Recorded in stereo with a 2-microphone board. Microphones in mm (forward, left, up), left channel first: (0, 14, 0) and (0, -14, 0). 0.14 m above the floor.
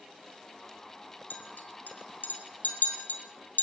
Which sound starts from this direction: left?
A clink, at 1.3 s.